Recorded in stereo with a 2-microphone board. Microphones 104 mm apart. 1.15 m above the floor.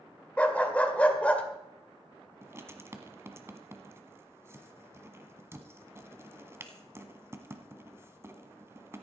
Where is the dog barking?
15° left (ahead or behind), 1.7 m.